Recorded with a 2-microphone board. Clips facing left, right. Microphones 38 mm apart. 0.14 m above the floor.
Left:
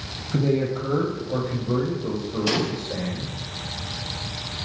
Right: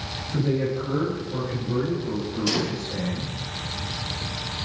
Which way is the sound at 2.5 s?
20° left (ahead or behind).